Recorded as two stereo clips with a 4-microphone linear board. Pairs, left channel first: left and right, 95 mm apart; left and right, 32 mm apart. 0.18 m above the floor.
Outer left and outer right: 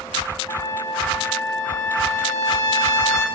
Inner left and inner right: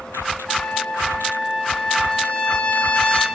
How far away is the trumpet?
About 2 m.